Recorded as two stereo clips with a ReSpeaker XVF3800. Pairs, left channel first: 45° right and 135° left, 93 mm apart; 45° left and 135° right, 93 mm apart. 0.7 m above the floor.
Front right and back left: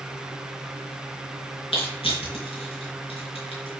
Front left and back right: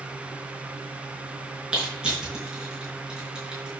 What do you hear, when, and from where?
1.7 s crushing: 55° right, 5 m